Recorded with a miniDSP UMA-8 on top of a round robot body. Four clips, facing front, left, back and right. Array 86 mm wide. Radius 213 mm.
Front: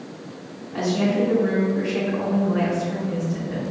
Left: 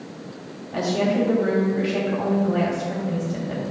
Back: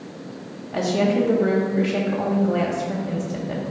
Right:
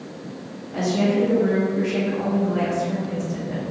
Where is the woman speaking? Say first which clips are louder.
Right 1 dB, back 2 dB; 160° left, 2.5 m.